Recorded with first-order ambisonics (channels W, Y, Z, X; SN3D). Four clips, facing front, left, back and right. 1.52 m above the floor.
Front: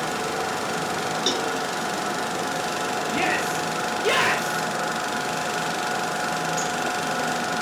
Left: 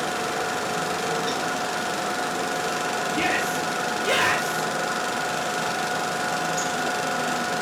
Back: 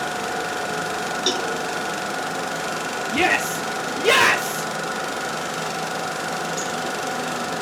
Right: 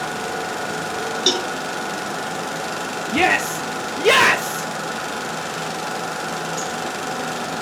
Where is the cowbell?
95° right, 0.9 m.